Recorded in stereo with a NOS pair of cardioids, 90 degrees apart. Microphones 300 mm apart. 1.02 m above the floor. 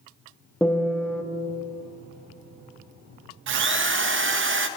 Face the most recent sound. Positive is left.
turn(degrees=-40)